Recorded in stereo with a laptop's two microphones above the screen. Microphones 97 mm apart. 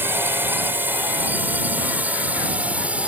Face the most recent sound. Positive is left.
turn(degrees=-15)  # may be behind; listen again after turning